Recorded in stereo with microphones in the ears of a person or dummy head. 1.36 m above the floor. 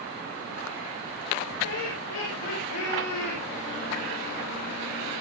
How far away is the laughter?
About 7 m.